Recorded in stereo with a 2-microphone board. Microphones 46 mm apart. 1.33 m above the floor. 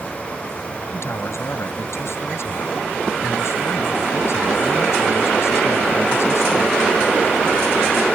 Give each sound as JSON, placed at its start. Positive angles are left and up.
{"t": 0.9, "sound": "a man speaking", "side_deg": 70}